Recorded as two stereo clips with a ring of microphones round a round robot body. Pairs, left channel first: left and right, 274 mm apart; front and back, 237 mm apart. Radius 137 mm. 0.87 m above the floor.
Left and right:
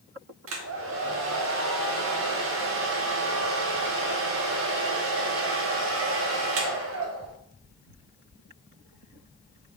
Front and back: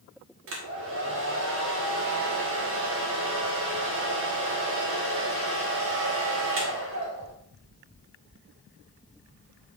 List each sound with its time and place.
0.5 s a hair dryer: 135° right, 1.3 m